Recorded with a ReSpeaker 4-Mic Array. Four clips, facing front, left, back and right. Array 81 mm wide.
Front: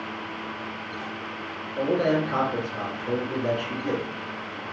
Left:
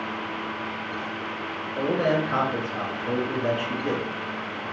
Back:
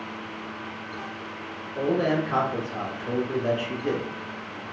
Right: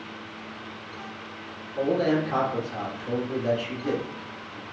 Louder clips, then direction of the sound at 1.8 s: Even, front 1 dB; 110° left.